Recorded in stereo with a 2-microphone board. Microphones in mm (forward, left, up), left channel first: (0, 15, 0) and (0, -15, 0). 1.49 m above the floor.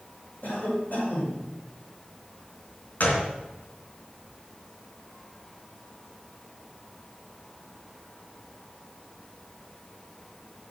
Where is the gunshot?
55° left (ahead or behind), 2 m.